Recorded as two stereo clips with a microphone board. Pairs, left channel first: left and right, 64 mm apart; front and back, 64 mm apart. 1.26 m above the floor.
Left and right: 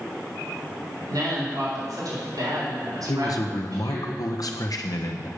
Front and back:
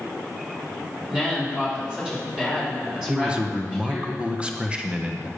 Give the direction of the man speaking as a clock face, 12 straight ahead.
8 o'clock.